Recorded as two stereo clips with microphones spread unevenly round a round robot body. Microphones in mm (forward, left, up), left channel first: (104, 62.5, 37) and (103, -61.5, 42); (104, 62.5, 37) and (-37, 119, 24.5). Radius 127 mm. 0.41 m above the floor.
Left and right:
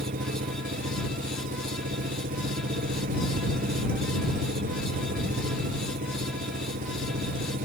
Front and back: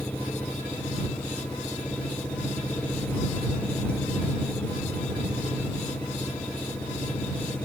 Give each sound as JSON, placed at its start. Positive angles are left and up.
{"t": 0.0, "sound": "an engine running", "azimuth_deg": -105}